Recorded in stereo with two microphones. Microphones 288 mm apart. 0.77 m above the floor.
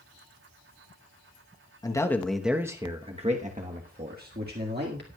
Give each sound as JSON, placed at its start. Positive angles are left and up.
{"t": 1.8, "sound": "a man speaking", "side_deg": 15, "distance_m": 1.0}